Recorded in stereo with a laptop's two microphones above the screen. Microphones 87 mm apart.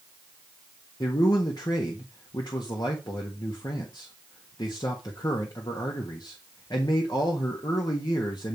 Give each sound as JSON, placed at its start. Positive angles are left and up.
{"t": 1.0, "sound": "a man speaking", "side_deg": 60, "distance_m": 1.4}